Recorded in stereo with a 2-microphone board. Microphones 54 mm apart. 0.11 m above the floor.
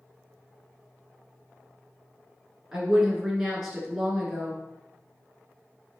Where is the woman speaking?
10° right (ahead or behind), 1.3 m.